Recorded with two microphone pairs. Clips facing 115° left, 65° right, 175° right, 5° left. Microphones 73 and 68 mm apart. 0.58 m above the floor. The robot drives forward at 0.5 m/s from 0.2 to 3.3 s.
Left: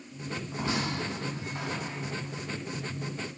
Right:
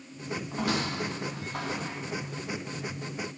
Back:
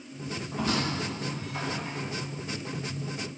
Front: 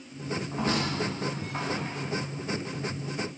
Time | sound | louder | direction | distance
0.5 | a squeak | right 1 dB, even | 45° right | 4.5 m